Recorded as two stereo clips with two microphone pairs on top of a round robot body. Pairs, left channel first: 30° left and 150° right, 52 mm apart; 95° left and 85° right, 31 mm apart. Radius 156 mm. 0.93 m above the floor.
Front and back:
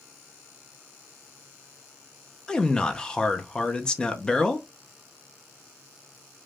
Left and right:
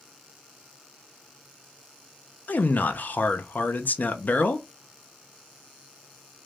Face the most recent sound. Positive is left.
turn(degrees=100)